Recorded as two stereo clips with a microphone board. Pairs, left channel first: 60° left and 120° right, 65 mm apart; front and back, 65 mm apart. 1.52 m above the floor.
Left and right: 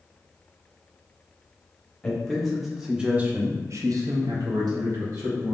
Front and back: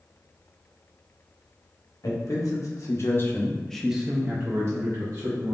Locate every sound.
2.0 s a man speaking: 25° right, 1.1 m; by 5.5 s 155° right, 1.1 m